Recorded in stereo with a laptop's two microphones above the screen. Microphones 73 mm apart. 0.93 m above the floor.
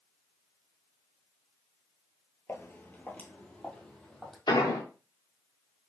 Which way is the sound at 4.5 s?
75° left (ahead or behind).